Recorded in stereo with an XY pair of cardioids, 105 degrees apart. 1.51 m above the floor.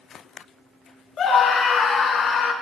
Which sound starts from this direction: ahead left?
A scream, at 1.2 s.